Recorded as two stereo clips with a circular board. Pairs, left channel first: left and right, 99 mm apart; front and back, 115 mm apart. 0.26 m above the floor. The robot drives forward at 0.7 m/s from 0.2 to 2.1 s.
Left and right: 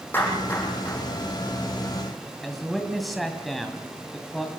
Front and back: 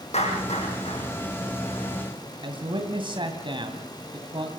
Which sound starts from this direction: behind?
A man speaking, at 2.4 s.